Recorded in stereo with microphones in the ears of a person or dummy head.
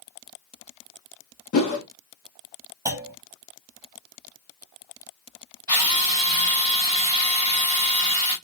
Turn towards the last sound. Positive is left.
turn(degrees=-15)  # may be behind; listen again after turning